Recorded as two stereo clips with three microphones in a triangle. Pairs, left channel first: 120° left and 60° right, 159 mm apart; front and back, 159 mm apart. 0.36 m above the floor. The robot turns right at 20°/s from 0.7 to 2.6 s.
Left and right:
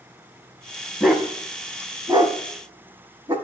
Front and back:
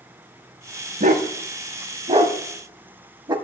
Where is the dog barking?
150° right, 0.6 m; by 3.4 s 115° right, 0.6 m.